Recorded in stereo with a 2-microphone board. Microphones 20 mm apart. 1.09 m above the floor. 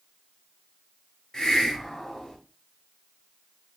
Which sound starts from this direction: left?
A hiss, at 1.3 s.